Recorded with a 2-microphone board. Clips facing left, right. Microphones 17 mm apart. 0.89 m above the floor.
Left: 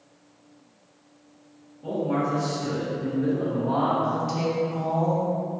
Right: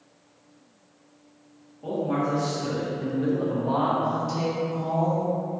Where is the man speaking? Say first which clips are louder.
Even; 40° right (ahead or behind), 0.9 m; by 3.9 s 10° right (ahead or behind), 0.7 m.